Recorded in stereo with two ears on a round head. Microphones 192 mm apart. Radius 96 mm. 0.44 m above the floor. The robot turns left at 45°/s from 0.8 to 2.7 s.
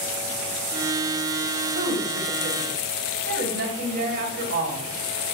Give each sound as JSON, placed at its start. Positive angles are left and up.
{"t": 1.8, "sound": "a woman speaking", "azimuth_deg": -75, "distance_m": 2.0}